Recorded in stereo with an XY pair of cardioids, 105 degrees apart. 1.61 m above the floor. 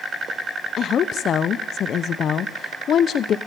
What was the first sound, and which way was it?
A woman speaking, 60° left.